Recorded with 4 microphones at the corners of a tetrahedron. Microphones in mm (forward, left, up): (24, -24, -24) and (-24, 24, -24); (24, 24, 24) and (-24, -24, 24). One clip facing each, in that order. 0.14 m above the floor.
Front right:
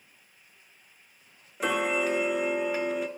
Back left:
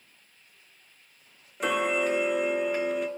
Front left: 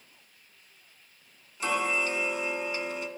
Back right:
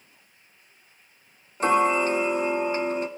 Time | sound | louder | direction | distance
1.6 | ticking | back left 1 dB, back right 8 dB | 135° right | 0.6 m